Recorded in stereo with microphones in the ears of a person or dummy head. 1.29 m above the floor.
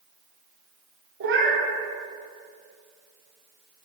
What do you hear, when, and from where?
1.2 s a cat meowing: 60° right (ahead or behind), 2.5 m